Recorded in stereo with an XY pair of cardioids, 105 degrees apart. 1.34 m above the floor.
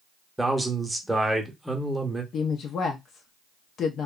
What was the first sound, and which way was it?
A man speaking, 5° right.